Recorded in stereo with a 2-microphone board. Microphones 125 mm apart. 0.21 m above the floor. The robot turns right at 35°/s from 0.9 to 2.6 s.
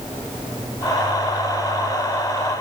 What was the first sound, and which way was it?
Only background noise.